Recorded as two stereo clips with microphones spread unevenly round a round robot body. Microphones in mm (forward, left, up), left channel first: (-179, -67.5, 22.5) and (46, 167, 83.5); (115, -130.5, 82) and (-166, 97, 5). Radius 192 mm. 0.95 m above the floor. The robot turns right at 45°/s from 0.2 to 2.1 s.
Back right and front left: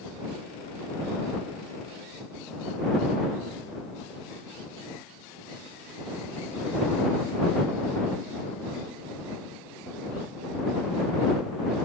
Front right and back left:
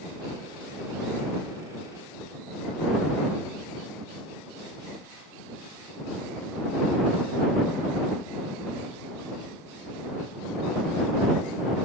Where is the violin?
I don't hear a violin.